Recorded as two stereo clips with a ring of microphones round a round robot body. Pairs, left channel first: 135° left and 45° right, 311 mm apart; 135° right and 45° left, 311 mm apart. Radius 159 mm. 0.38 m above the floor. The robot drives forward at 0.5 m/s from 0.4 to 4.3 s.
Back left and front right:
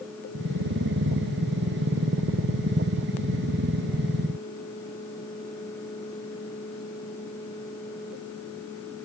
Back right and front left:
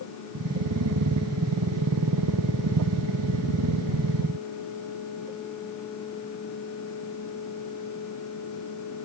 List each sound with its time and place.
Only background noise.